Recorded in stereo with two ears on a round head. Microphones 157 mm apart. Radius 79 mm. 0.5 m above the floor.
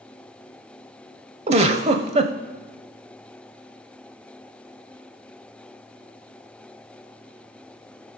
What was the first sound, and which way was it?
A giggle, 35° right (ahead or behind).